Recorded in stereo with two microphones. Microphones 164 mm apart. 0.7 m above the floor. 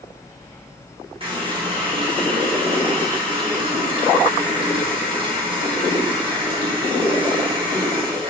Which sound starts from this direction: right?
A running tap, at 1.2 s.